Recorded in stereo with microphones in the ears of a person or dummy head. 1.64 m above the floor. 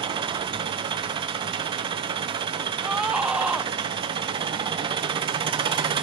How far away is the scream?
About 0.6 m.